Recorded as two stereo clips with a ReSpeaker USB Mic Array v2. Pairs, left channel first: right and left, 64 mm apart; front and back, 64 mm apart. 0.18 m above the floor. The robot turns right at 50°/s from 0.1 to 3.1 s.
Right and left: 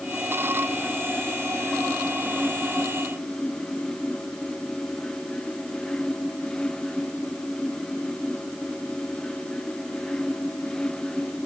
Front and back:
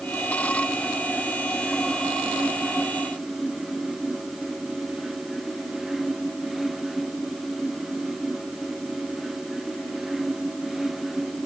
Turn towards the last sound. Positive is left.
No sound to turn to.